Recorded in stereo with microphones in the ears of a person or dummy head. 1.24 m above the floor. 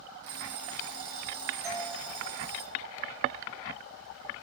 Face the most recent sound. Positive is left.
turn(degrees=-10)  # may be behind; listen again after turning